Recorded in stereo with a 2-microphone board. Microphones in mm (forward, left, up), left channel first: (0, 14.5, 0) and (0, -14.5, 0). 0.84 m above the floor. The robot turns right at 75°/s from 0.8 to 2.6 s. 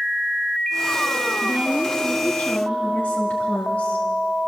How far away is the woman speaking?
About 1.9 m.